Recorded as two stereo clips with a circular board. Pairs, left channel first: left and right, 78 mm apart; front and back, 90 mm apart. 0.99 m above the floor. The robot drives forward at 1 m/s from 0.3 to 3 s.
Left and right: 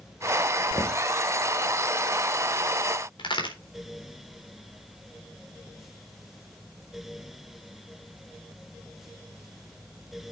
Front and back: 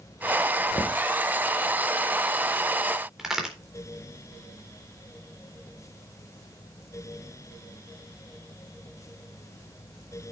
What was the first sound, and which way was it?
Knocking, 40° left.